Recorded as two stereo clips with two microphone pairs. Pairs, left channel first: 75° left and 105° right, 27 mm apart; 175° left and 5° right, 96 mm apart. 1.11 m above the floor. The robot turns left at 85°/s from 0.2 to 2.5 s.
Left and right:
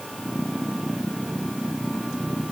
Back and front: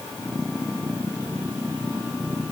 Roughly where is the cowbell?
No cowbell in this recording.